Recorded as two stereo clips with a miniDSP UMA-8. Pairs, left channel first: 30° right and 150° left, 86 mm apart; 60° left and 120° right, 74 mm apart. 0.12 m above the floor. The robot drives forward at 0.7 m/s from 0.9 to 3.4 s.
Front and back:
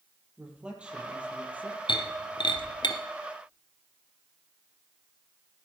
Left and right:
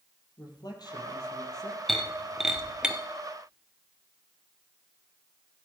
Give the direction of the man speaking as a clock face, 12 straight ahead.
10 o'clock.